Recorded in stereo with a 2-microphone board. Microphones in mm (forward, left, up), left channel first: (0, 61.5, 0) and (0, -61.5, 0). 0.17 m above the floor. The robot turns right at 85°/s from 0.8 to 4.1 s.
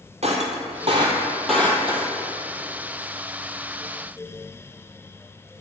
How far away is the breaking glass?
About 1.3 m.